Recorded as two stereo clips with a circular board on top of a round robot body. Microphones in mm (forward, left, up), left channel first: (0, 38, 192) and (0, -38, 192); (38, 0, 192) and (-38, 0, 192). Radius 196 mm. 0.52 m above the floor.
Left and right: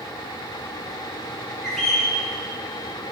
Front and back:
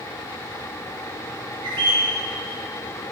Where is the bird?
Straight behind, 1.0 m.